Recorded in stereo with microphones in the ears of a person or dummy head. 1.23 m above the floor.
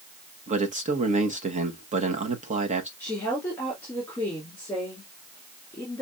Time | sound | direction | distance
0.5 | a man speaking | 35° right (ahead or behind) | 1.3 m
3.0 | a woman speaking | 10° left (ahead or behind) | 2.5 m